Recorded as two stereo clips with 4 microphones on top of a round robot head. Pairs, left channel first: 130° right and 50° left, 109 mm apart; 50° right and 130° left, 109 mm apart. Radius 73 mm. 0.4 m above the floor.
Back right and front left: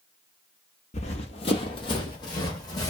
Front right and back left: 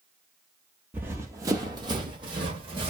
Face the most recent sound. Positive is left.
turn(degrees=175)